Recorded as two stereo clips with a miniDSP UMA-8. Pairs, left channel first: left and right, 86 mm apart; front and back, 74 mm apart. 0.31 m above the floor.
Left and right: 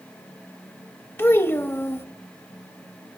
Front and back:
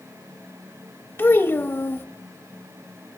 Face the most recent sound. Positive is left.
turn(degrees=45)